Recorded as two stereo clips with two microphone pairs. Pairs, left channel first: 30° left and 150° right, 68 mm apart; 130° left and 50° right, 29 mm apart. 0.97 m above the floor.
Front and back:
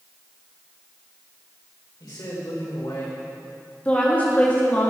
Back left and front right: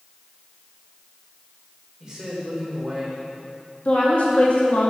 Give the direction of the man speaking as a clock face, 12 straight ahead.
11 o'clock.